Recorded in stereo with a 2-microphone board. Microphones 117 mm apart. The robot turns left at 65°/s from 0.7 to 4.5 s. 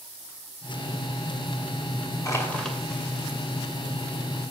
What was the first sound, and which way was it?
Crushing, 30° left.